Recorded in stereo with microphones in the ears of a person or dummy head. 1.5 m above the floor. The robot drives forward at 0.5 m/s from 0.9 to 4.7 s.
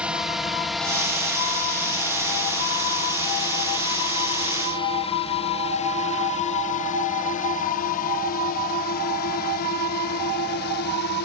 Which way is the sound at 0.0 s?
5° right (ahead or behind).